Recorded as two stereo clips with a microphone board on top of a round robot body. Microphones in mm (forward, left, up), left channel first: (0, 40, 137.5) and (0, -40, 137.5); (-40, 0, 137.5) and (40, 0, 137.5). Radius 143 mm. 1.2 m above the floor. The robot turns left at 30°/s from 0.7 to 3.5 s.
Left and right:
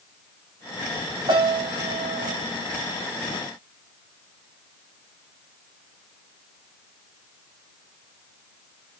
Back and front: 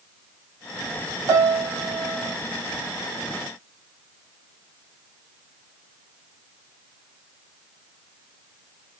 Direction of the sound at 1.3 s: 55° right.